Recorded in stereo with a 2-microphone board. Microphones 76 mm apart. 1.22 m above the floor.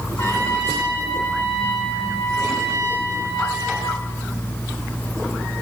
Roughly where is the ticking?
No ticking in this recording.